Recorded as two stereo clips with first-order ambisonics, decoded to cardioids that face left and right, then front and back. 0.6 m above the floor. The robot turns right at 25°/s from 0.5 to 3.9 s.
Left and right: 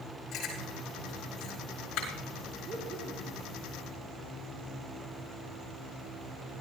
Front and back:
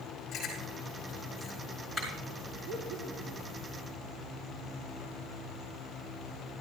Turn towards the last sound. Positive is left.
turn(degrees=-120)